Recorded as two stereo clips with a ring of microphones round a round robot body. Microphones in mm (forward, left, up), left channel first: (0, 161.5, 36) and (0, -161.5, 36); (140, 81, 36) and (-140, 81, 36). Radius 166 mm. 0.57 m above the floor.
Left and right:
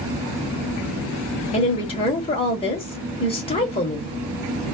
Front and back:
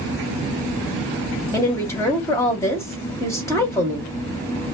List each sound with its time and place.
1.5 s a woman speaking: 60° left, 1.0 m